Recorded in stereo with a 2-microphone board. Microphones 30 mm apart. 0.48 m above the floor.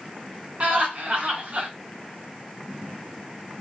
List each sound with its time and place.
0.6 s laughter: 45° right (ahead or behind), 1.8 m